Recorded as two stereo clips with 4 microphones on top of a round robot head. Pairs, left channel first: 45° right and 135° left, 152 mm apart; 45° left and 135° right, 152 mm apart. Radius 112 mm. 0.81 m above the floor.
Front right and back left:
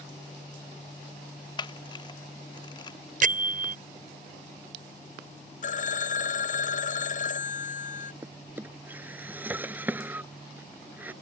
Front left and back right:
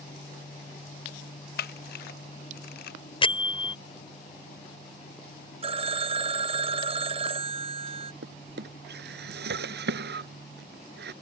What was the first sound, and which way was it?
A camera shutter, 20° left.